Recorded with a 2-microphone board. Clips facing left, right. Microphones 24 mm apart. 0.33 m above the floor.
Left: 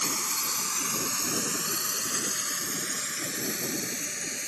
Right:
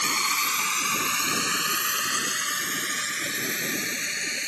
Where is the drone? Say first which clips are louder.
Right 6 dB; 65° right (ahead or behind); by 4.5 s 40° right (ahead or behind).